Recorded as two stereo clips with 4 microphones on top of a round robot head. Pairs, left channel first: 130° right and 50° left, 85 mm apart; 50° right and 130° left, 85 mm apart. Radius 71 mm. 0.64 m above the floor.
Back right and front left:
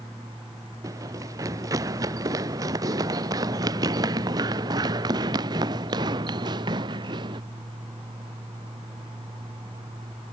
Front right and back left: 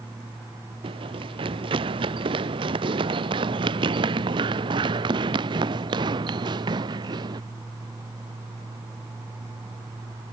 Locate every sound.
0.8 s running footsteps: 105° left; by 7.4 s 90° left